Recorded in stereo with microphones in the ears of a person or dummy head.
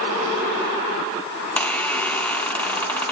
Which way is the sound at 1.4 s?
10° left (ahead or behind).